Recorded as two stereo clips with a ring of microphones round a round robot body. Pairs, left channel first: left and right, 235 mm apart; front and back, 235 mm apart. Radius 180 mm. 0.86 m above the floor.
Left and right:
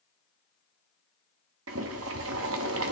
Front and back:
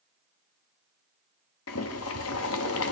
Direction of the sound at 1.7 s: 45° right.